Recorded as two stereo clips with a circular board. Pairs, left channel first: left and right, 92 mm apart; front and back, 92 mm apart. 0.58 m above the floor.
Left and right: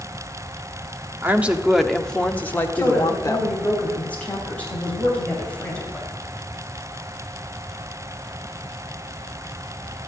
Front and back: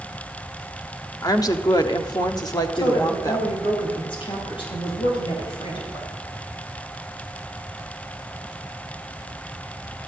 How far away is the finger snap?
I don't hear a finger snap.